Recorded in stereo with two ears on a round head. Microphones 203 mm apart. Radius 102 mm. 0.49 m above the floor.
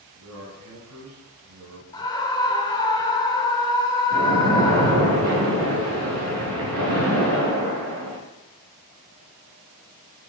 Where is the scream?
20° left (ahead or behind), 1.3 m.